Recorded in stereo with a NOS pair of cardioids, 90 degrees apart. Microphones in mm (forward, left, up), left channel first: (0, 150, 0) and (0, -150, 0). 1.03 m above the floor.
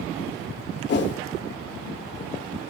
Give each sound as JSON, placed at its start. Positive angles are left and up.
{"t": 0.9, "sound": "a whoosh", "azimuth_deg": 40, "distance_m": 1.2}